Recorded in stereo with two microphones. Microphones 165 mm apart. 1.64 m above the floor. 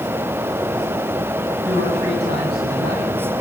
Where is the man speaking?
85° right, 10 m.